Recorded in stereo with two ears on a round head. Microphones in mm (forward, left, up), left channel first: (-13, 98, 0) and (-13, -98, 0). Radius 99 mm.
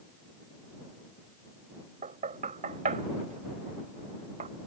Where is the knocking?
35° right (ahead or behind).